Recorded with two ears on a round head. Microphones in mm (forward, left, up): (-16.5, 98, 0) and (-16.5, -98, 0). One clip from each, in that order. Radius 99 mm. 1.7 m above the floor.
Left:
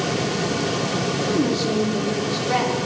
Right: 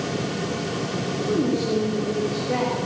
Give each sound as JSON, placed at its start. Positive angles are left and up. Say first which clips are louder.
{"t": 1.3, "sound": "a woman speaking", "louder": "right 1 dB", "side_deg": 60, "distance_m": 5.0}